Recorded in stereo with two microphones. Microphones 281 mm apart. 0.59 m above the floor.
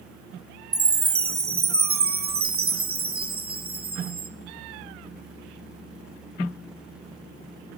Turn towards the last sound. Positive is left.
turn(degrees=-50)  # may be behind; listen again after turning